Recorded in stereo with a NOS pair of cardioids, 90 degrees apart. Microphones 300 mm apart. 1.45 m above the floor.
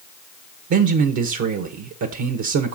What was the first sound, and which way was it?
A man speaking, 65° right.